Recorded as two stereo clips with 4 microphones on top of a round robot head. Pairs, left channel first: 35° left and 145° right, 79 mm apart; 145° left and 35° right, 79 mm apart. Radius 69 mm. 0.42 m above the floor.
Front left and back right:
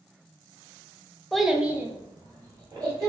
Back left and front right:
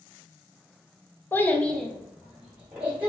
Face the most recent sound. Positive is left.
turn(degrees=-105)